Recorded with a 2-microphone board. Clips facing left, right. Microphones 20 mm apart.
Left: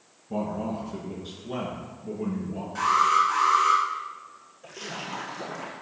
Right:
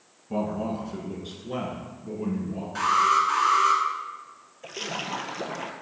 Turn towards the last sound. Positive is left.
turn(degrees=-40)  # may be behind; listen again after turning